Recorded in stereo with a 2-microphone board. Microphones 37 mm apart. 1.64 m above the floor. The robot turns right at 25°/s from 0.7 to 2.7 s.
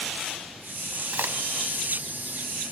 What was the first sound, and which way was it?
A crack, 60° right (ahead or behind).